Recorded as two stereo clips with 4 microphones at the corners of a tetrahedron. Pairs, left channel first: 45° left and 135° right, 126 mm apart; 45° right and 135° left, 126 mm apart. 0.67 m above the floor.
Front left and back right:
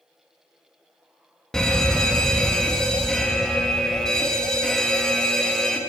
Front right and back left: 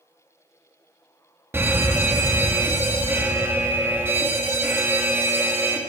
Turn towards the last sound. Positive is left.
turn(degrees=120)